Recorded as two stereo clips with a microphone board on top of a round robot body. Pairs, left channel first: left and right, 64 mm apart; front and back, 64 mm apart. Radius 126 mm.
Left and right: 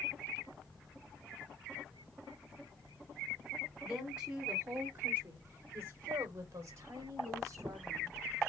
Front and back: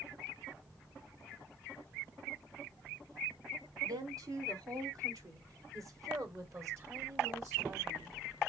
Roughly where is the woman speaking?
Behind.